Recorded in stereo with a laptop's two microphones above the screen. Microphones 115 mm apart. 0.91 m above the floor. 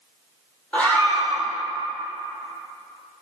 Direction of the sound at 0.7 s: 15° left (ahead or behind).